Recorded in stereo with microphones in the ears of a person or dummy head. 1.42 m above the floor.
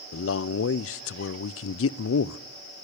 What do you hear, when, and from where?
0.1 s a man speaking: 70° left (ahead or behind), 0.5 m